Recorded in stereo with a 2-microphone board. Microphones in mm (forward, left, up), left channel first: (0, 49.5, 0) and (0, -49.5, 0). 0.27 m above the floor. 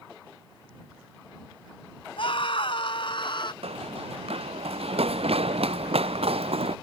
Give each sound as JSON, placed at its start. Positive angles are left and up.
{"t": 2.2, "sound": "a scream", "side_deg": 65}
{"t": 3.6, "sound": "running footsteps", "side_deg": -85}